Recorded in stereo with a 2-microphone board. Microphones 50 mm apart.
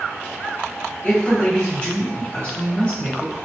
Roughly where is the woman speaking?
Left.